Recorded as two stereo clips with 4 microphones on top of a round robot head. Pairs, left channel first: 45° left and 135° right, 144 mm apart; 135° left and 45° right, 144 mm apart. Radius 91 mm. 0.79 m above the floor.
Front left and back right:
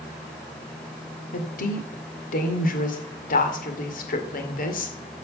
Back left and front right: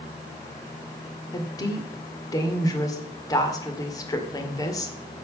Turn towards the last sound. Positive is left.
turn(degrees=70)